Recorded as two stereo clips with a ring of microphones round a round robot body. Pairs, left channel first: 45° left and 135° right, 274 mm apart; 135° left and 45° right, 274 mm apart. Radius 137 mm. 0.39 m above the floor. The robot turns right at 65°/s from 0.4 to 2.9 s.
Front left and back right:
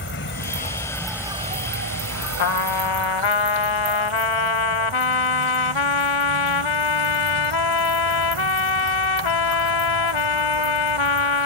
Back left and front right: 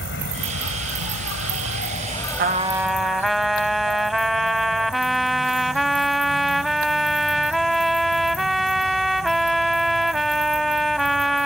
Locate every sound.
0.0 s an insect: 90° left; by 11.5 s 105° right
2.4 s a trumpet: 10° left; by 11.5 s 45° left